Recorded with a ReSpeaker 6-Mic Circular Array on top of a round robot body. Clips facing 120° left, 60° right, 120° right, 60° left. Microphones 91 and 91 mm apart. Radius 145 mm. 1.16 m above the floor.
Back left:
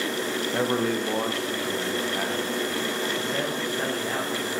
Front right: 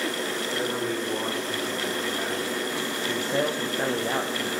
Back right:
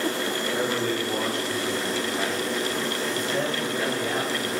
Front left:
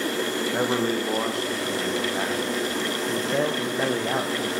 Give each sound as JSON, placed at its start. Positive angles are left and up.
{"t": 0.5, "sound": "a man speaking", "azimuth_deg": 100, "distance_m": 1.6}
{"t": 3.1, "sound": "a man speaking", "azimuth_deg": 10, "distance_m": 1.1}